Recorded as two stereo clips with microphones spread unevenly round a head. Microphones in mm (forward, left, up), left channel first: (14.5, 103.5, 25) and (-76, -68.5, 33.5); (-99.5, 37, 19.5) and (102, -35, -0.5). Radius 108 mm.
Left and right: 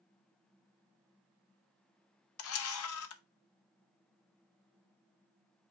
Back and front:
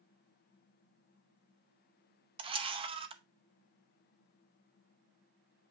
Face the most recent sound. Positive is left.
turn(degrees=45)